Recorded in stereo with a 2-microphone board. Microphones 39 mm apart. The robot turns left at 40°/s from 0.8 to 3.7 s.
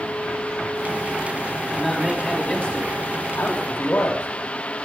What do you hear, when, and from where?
1.6 s a man speaking: 170° right, 4.5 m; by 4.3 s 105° left, 4.5 m